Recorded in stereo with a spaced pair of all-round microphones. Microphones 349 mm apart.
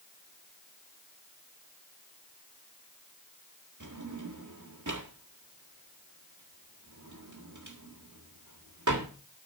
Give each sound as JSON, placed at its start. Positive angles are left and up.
{"t": 3.8, "sound": "a drawer", "side_deg": -55, "distance_m": 1.6}